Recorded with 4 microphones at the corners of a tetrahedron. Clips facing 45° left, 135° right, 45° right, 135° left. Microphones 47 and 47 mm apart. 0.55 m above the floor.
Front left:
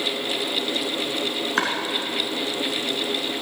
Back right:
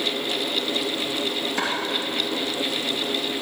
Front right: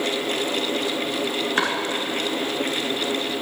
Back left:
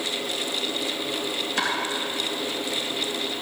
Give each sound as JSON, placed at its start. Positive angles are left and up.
{"t": 1.6, "sound": "chopping", "azimuth_deg": 10, "distance_m": 2.5}